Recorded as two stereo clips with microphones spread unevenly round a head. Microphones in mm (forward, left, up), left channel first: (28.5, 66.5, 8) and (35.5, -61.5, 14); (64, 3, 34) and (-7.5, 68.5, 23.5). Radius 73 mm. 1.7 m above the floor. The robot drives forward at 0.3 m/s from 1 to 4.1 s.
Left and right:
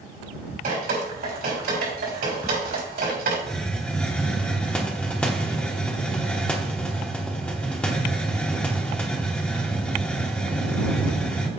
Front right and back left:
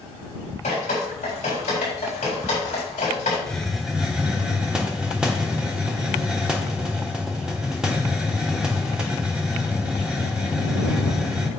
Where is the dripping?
80° right, 4 m; by 3.4 s 90° right, 4 m.